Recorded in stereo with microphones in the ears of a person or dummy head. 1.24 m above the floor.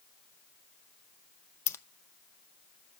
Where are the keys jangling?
15° left (ahead or behind), 0.7 m.